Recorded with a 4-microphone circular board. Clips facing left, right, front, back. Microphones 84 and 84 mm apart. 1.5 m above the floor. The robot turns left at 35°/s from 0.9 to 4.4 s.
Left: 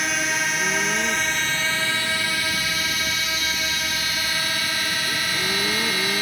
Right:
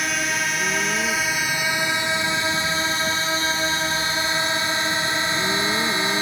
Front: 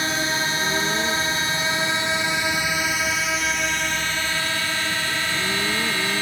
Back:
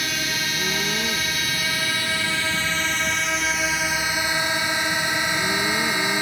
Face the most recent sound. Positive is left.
turn(degrees=-125)